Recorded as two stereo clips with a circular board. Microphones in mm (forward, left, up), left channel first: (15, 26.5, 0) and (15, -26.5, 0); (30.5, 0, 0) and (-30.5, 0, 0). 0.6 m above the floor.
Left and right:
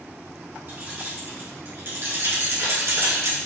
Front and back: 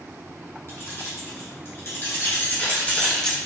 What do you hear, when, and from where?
0.7 s keys jangling: 40° right, 2.5 m; by 3.4 s 80° right, 1.0 m